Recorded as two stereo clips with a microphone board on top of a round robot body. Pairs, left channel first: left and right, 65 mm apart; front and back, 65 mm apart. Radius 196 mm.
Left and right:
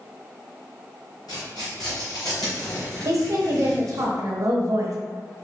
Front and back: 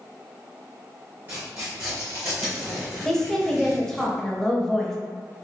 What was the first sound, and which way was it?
Tearing paper, 115° left.